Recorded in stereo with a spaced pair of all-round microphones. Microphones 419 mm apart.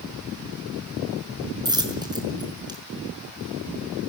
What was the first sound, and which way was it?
A dropped coin, 10° right (ahead or behind).